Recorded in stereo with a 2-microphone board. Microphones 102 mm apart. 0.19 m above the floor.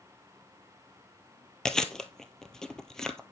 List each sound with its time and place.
1.6 s chewing: 5° left (ahead or behind), 1.0 m